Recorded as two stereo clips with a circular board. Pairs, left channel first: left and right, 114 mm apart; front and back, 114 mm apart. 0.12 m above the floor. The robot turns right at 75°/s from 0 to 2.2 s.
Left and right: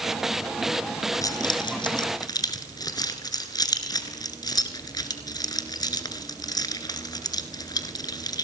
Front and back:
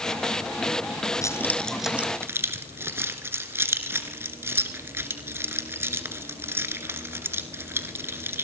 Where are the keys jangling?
45° left, 1.4 m; by 8.4 s 120° left, 1.4 m.